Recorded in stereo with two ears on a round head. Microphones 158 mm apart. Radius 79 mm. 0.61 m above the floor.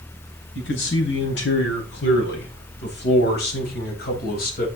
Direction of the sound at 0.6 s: 75° left (ahead or behind).